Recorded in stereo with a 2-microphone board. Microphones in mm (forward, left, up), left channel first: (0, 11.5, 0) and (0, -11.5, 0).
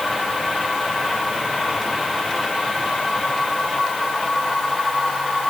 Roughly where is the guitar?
No guitar in this recording.